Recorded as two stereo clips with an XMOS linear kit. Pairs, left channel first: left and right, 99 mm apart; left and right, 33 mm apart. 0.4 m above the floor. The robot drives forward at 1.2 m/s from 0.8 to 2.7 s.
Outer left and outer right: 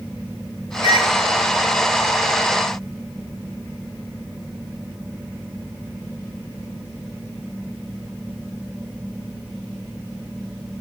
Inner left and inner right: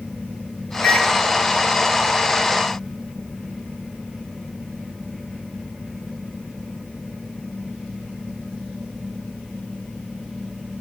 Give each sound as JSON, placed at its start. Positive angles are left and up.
{"t": 0.8, "sound": "a microwave", "side_deg": 65, "distance_m": 3.0}